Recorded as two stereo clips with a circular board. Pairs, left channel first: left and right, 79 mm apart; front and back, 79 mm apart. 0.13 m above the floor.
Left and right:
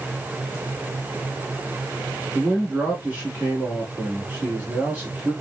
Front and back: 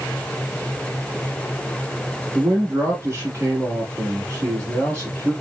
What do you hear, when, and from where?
2.4 s a man speaking: 150° right, 1.3 m